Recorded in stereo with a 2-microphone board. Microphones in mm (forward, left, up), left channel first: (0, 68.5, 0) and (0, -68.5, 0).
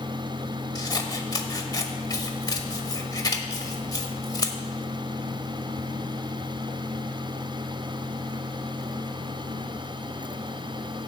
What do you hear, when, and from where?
0.8 s scissors: 30° left (ahead or behind), 1.2 m